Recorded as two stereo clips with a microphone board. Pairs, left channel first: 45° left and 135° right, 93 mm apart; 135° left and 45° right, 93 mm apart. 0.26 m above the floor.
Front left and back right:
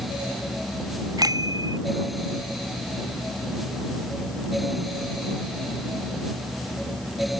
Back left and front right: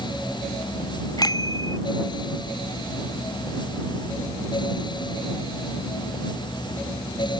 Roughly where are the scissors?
I don't hear scissors.